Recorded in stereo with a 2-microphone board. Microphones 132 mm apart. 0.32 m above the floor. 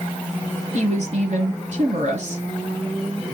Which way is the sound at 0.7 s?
65° right (ahead or behind).